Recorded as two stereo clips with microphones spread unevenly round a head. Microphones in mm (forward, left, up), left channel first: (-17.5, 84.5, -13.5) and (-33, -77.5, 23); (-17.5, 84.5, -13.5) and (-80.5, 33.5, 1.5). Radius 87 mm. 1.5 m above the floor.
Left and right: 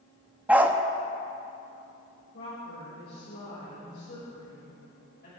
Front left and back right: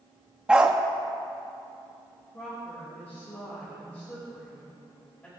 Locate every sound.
0.5 s a dog barking: 120° right, 0.9 m
2.3 s a woman speaking: 110° left, 6.5 m